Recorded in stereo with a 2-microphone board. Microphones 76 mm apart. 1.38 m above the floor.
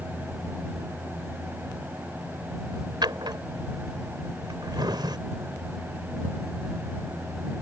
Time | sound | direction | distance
3.0 | a drawer | 75° right (ahead or behind) | ?